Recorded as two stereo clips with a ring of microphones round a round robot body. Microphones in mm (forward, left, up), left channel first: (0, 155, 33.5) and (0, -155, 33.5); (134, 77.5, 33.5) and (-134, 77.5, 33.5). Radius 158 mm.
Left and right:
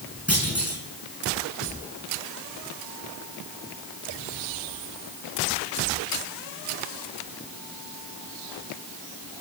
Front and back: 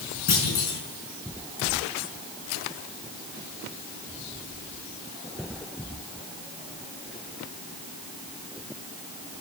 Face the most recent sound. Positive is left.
turn(degrees=-5)